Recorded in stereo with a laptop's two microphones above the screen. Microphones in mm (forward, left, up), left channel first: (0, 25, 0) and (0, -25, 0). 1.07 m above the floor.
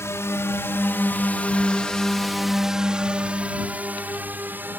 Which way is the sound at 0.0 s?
65° left (ahead or behind).